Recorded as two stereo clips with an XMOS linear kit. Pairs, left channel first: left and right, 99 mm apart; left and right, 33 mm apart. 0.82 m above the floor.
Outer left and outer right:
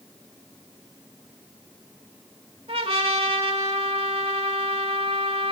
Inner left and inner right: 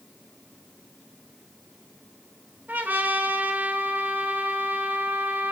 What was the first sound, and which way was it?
A trumpet, 80° right.